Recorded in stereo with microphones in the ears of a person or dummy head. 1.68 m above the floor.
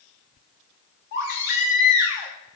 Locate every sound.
1.1 s a baby crying: 60° left (ahead or behind), 1.9 m